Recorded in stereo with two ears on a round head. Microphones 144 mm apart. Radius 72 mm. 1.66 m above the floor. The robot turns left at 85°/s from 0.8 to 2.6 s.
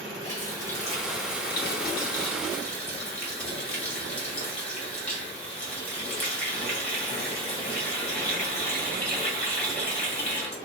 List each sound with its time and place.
0.2 s a running tap: 165° left, 1.8 m; by 10.6 s 10° left, 1.8 m